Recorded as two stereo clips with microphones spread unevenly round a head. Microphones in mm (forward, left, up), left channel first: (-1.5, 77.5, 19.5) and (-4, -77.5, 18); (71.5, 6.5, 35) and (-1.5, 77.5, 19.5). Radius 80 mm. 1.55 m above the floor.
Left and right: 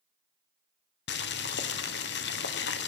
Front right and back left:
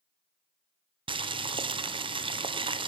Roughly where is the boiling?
Left.